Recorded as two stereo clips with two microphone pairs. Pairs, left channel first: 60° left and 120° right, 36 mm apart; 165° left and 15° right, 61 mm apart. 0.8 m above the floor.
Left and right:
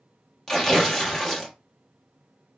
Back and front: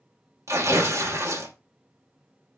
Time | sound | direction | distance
0.5 | tearing paper | 15° right | 0.9 m